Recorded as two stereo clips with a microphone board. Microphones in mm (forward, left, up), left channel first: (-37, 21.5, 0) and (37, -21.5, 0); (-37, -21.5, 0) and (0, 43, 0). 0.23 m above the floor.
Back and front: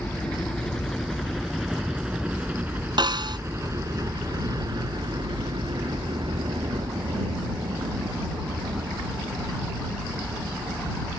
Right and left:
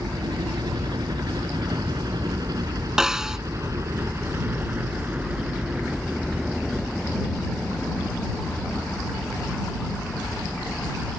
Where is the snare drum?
20° right.